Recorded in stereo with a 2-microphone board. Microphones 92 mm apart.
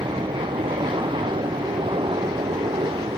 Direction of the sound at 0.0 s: 65° right (ahead or behind).